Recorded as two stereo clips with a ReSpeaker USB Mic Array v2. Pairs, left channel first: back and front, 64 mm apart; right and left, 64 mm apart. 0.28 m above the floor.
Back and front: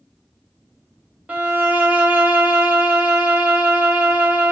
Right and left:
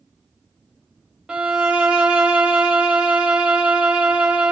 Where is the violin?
30° left, 0.6 m.